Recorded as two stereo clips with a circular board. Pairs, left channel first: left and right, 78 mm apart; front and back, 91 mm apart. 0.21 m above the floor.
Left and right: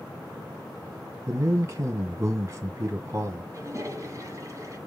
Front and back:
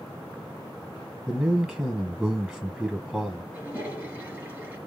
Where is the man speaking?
110° right, 1.4 m.